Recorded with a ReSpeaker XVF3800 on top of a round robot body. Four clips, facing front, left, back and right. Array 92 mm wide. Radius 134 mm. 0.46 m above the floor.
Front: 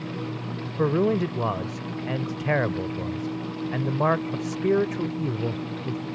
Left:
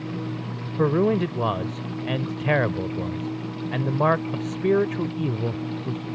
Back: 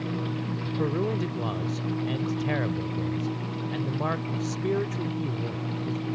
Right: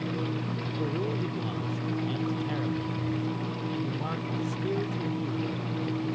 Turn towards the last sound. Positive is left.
turn(degrees=60)